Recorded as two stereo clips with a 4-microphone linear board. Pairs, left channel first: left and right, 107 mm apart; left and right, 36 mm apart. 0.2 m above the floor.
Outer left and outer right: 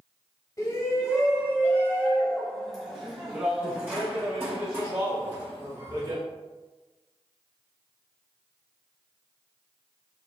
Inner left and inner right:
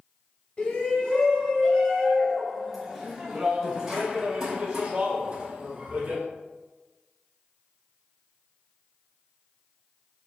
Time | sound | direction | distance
0.6 | a shout | 35° left (ahead or behind) | 1.8 m